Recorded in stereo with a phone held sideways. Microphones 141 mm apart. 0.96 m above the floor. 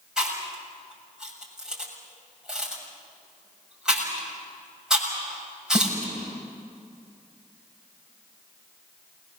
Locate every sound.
0.2 s chewing: 5° right (ahead or behind), 7 m